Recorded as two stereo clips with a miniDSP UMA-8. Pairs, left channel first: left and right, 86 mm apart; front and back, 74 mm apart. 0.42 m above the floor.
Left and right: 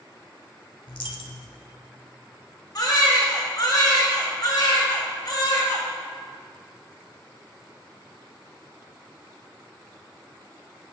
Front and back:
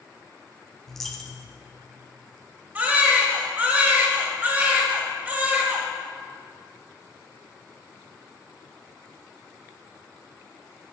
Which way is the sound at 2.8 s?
120° left.